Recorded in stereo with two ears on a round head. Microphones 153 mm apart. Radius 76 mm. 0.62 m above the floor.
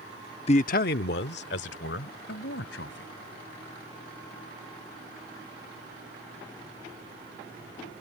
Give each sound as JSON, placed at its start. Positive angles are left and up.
{"t": 0.5, "sound": "a man speaking", "side_deg": 35}